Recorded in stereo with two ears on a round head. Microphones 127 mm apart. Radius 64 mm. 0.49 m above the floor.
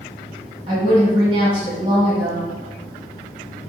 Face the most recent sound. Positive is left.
turn(degrees=-35)  # may be behind; listen again after turning